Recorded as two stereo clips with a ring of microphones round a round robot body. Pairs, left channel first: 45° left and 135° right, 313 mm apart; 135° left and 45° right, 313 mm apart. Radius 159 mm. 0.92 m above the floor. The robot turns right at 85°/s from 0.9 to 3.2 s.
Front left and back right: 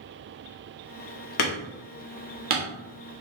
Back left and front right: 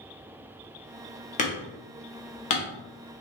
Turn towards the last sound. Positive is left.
turn(degrees=-140)